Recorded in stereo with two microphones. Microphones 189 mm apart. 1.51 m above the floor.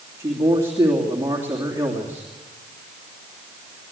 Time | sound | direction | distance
0.2 | a man speaking | 15° right (ahead or behind) | 3 m